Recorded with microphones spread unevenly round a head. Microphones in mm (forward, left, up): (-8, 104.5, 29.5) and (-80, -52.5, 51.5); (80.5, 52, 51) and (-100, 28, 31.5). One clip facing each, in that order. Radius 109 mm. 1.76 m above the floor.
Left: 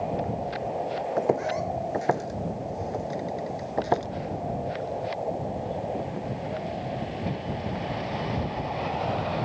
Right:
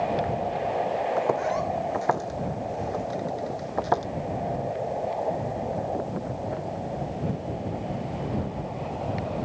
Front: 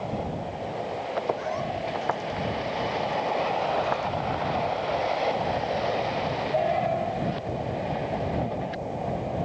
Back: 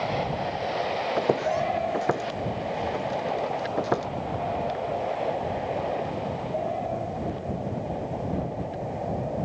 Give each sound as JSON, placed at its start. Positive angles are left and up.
{"t": 1.2, "sound": "footsteps", "azimuth_deg": 135}